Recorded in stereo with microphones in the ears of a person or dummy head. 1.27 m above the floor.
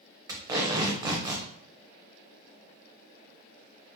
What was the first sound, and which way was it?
Tape being pulled, 15° right (ahead or behind).